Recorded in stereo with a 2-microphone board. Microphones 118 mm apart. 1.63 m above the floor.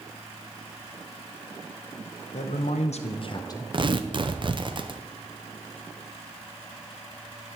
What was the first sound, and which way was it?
A man speaking, 75° left (ahead or behind).